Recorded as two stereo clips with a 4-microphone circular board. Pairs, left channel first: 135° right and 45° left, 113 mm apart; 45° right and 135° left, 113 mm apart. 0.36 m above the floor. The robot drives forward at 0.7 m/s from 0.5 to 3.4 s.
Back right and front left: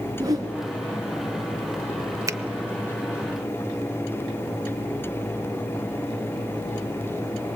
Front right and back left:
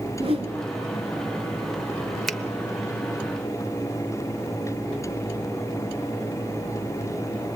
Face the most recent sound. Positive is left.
turn(degrees=155)